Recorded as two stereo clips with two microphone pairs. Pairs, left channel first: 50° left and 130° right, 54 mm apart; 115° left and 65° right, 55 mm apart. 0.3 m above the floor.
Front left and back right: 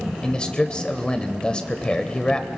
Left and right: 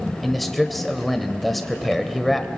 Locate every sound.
0.2 s a man speaking: 25° left, 0.9 m